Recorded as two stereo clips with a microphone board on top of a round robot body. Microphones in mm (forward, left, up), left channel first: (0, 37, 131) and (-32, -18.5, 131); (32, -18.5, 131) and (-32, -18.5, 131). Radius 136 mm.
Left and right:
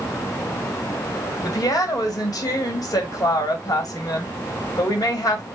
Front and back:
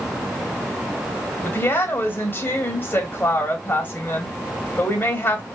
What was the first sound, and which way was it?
A woman speaking, 55° left.